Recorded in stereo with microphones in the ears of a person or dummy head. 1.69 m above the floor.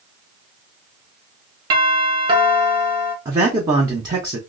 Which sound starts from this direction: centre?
A man speaking, at 3.2 s.